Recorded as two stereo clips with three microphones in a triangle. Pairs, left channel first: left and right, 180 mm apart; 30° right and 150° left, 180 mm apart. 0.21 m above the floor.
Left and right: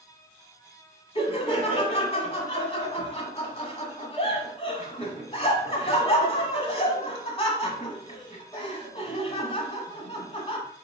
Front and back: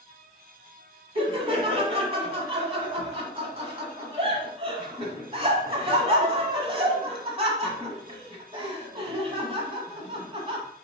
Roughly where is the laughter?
Behind left.